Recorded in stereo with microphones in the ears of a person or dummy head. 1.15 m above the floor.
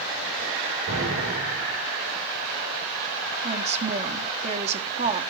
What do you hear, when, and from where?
0.9 s an explosion: 75° right (ahead or behind), 5.5 m
3.4 s a woman speaking: 35° right (ahead or behind), 1.7 m